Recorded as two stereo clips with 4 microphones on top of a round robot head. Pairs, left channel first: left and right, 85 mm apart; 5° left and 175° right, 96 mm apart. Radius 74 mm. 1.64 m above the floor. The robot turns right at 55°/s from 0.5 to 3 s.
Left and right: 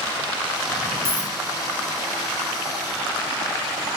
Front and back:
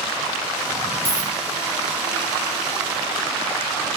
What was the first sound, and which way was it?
A dropped coin, 70° left.